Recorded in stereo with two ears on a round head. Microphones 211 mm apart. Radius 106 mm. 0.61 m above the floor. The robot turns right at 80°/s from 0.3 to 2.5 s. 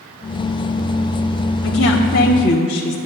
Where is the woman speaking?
80° left, 1.4 m; by 3.0 s 150° left, 1.4 m.